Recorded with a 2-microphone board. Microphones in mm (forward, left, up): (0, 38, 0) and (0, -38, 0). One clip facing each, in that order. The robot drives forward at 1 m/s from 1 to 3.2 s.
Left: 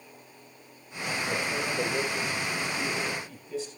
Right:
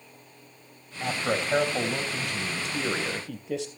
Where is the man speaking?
55° right (ahead or behind), 3 m; by 3.7 s 65° right (ahead or behind), 2.5 m.